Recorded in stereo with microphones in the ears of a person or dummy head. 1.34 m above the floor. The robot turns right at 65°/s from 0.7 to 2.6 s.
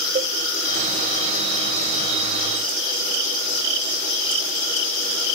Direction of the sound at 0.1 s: 30° right (ahead or behind).